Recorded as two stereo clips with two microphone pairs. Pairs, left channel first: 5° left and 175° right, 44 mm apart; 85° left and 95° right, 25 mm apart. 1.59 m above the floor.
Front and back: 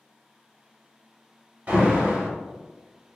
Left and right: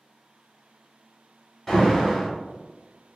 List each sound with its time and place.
1.7 s an alarm: 160° left, 1.1 m